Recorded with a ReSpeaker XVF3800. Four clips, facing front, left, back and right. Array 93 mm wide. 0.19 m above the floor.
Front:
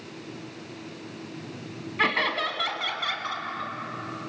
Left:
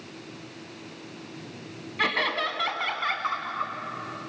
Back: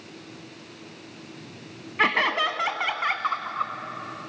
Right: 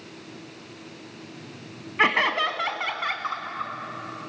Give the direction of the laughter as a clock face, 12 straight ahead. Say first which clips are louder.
Right 5 dB, back 3 dB; 4 o'clock.